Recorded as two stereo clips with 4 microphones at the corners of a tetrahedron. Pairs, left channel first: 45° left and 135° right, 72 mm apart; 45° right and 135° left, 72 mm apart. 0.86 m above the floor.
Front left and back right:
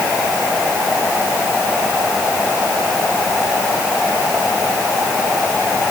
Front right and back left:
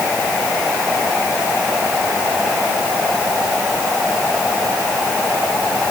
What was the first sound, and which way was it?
Only background noise.